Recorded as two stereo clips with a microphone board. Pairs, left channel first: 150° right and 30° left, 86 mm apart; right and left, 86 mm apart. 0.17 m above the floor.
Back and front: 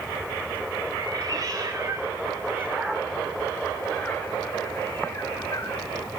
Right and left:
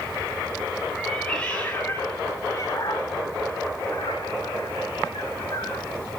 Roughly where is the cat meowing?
Ahead.